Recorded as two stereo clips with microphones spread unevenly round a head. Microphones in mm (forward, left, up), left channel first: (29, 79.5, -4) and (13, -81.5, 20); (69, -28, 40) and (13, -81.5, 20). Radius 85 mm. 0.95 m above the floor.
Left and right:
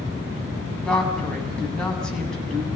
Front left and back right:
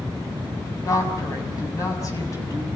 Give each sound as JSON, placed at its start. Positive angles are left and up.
{"t": 0.8, "sound": "a woman speaking", "azimuth_deg": 0, "distance_m": 7.0}